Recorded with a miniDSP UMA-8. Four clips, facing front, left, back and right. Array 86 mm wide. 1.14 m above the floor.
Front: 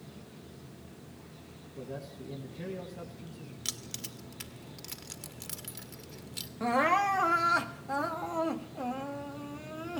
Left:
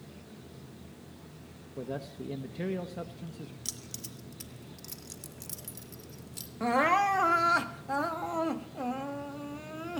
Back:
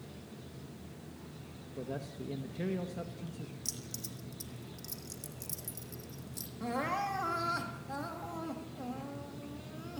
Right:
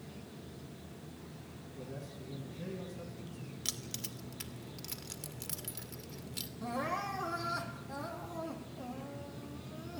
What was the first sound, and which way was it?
A man speaking, 105° left.